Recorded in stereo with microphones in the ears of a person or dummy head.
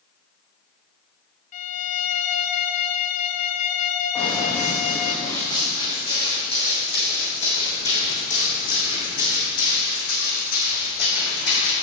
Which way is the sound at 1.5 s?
40° left (ahead or behind).